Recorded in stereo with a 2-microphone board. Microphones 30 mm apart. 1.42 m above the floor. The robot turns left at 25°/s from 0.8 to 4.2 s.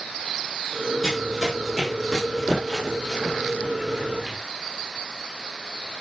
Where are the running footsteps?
5° right (ahead or behind), 1.8 m; by 4.4 s 25° right (ahead or behind), 1.5 m.